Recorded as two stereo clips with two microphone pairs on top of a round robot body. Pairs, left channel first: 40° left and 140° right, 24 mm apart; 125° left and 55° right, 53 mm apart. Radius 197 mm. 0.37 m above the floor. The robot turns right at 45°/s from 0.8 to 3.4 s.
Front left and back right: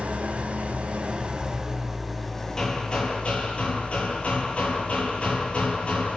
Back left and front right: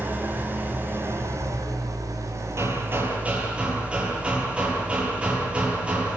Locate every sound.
0.0 s an engine running: 105° right, 4 m; by 6.2 s 10° left, 4 m
2.6 s hammering: 20° right, 9.5 m; by 6.2 s 15° left, 9.5 m